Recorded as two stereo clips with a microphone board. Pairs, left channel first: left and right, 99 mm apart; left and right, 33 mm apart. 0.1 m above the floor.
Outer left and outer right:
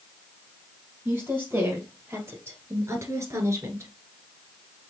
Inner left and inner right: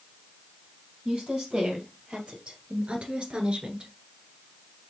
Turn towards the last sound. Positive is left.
turn(degrees=-25)  # may be behind; listen again after turning